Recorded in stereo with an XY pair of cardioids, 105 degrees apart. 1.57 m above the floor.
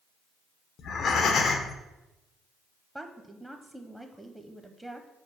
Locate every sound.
0.8 s breathing: 60° left, 0.9 m
3.0 s a woman speaking: 10° right, 0.7 m